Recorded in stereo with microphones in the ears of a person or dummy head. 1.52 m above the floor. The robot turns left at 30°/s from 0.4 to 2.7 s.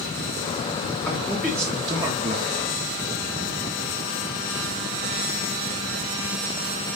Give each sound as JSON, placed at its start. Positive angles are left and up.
{"t": 1.1, "sound": "a man speaking", "azimuth_deg": 5, "distance_m": 0.8}